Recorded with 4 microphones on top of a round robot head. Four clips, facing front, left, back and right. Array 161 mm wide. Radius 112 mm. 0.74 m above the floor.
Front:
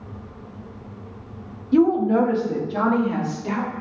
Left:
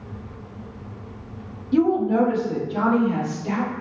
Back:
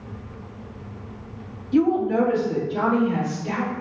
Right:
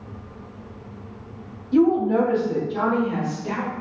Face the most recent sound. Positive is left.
turn(degrees=5)